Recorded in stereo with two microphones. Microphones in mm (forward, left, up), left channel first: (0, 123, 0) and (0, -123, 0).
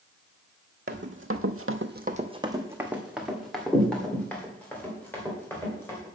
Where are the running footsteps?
45° right (ahead or behind), 1.1 m; by 6.1 s 10° left (ahead or behind), 4.5 m.